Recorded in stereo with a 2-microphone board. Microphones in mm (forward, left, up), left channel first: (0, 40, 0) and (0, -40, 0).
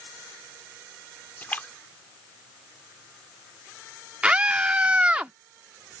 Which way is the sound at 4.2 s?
15° right (ahead or behind).